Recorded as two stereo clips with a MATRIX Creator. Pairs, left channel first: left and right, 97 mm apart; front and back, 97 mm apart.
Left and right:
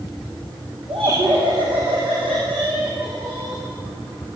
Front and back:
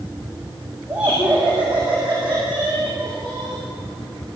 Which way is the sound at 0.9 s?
100° right.